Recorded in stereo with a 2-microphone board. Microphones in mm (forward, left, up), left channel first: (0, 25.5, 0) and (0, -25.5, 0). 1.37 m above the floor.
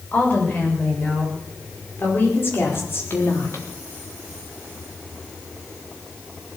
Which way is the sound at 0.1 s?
35° left (ahead or behind).